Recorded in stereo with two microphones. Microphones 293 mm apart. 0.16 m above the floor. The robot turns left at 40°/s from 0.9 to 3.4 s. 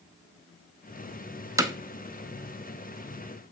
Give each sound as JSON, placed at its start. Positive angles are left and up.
{"t": 1.6, "sound": "hammering", "side_deg": -10, "distance_m": 0.7}